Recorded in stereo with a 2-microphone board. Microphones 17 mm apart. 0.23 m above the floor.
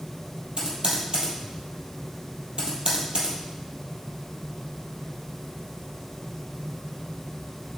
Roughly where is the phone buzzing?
I don't hear a phone buzzing.